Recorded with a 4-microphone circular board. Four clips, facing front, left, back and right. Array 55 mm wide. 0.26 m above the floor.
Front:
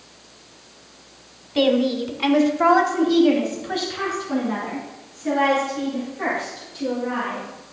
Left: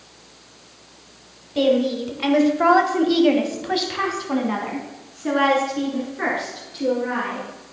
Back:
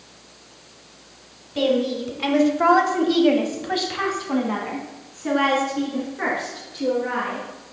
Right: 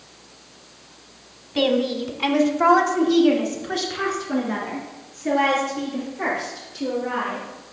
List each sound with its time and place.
1.6 s a woman speaking: 35° right, 1.0 m; by 7.5 s 130° left, 4 m